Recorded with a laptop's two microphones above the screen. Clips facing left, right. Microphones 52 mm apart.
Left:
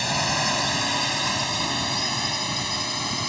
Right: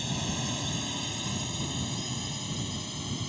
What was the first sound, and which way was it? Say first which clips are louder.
A drone: left 10 dB; 80° left.